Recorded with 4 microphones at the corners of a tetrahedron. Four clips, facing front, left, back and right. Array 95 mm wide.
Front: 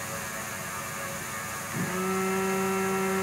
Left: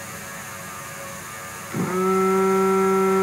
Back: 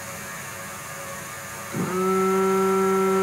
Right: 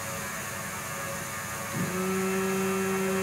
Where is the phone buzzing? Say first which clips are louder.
Left 10 dB, back 7 dB; 115° left.